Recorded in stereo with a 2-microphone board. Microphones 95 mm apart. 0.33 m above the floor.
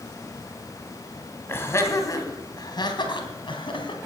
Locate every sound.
1.5 s laughter: 25° left (ahead or behind), 2.5 m; by 4.0 s 65° left (ahead or behind), 3 m